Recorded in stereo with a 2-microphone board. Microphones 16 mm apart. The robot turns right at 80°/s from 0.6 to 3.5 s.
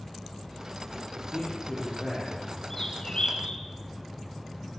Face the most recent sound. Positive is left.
turn(degrees=80)